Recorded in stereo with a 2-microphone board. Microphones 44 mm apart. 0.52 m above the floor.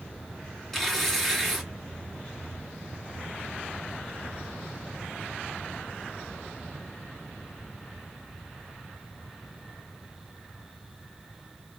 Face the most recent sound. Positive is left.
turn(degrees=10)  # may be behind; listen again after turning